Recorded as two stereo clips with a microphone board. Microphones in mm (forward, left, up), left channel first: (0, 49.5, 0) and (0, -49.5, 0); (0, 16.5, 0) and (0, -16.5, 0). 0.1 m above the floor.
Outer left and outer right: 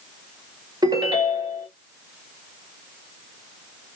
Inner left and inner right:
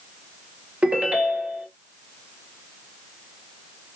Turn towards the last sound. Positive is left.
turn(degrees=-45)  # may be behind; listen again after turning